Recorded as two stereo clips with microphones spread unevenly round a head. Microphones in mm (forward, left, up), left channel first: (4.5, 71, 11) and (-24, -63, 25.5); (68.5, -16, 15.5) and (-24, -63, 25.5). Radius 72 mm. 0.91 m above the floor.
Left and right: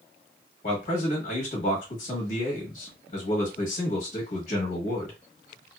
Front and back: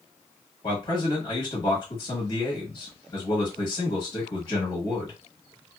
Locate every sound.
0.6 s a man speaking: 75° left, 1.1 m